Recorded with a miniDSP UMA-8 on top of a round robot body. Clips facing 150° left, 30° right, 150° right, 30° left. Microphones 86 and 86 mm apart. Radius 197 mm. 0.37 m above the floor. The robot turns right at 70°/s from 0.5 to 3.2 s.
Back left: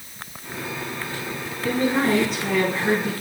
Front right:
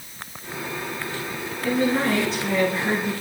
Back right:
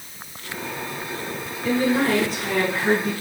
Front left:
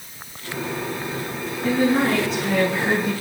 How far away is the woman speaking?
About 6.5 m.